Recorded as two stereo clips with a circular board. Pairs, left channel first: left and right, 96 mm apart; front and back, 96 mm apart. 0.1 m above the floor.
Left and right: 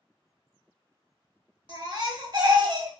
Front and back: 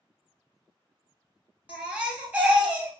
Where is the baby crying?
110° right, 1.1 m.